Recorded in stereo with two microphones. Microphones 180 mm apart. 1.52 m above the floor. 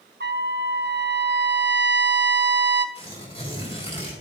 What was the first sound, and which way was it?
A trumpet, 70° right (ahead or behind).